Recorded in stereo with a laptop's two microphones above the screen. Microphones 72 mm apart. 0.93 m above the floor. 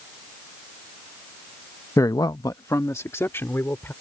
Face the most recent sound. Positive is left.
turn(degrees=30)  # may be behind; listen again after turning